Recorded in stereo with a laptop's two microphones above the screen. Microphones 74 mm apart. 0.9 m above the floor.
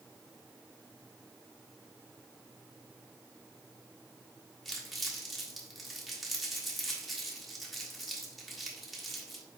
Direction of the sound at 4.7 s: Centre (ahead or behind).